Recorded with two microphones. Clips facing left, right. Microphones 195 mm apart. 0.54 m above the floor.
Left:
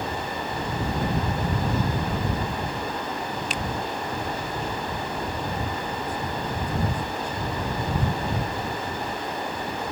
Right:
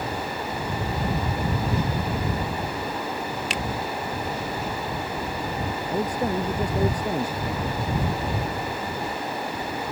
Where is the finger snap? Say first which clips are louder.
Right 1 dB; 80° right.